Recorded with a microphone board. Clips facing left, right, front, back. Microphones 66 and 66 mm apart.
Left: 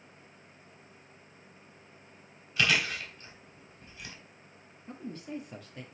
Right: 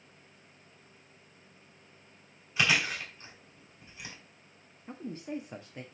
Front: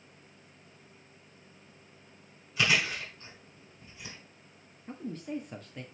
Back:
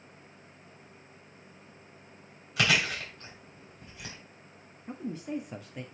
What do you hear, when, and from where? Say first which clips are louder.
2.6 s chewing: even, back 1 dB; 160° right, 3 m
4.9 s a man speaking: right 2 dB, back 2 dB; 115° right, 1.1 m